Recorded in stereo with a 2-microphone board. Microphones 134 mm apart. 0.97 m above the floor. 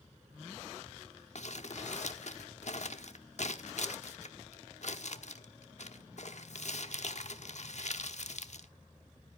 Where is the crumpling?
60° left (ahead or behind), 1.2 m.